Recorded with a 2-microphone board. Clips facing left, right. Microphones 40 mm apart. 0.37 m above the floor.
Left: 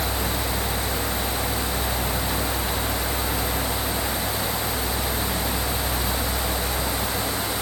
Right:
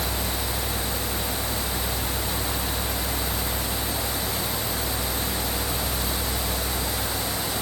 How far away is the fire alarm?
No fire alarm in this recording.